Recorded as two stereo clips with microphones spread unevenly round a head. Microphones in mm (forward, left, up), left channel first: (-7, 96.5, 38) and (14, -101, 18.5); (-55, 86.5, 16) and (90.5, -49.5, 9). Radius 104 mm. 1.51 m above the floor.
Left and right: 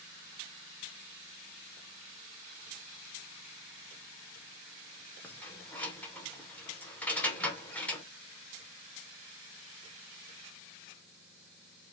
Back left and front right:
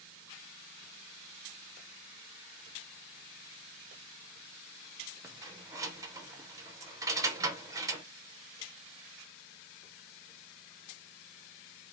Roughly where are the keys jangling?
Ahead left.